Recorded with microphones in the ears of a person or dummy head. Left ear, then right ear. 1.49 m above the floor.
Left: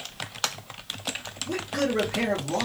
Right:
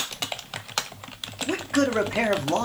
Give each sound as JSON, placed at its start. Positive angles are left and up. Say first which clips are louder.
{"t": 1.5, "sound": "a man speaking", "louder": "right 3 dB", "side_deg": -45, "distance_m": 1.1}